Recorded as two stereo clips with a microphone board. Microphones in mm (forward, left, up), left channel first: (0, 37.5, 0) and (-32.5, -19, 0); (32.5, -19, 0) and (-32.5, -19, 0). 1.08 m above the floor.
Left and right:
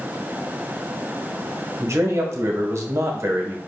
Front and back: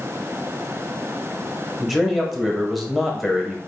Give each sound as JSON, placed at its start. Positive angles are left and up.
{"t": 1.8, "sound": "a man speaking", "azimuth_deg": -90, "distance_m": 1.0}